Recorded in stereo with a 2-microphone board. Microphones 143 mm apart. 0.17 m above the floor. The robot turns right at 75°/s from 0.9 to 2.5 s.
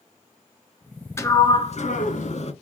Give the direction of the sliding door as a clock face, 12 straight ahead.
11 o'clock.